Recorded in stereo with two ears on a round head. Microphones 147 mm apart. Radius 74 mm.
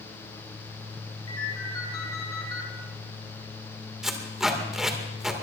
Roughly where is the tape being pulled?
Centre.